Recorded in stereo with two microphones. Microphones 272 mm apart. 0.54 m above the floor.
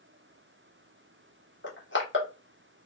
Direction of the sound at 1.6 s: 45° left (ahead or behind).